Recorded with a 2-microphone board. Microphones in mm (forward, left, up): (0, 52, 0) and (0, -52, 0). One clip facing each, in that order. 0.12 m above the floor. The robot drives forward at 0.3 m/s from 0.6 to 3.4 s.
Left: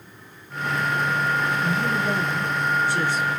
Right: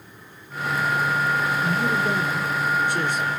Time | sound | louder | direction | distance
1.6 | a man speaking | right 1 dB | 20° right (ahead or behind) | 1.1 m